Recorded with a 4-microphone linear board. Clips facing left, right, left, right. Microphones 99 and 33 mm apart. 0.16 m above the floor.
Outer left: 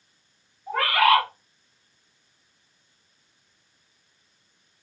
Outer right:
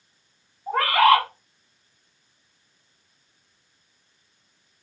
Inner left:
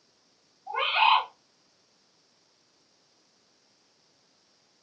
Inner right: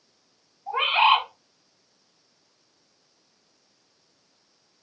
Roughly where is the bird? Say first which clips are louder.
Outer right 3 dB, inner right 3 dB; right.